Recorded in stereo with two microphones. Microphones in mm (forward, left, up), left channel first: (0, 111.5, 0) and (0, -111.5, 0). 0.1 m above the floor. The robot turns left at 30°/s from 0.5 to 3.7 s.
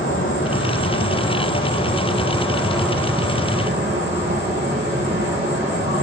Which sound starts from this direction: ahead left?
An insect, at 0.0 s.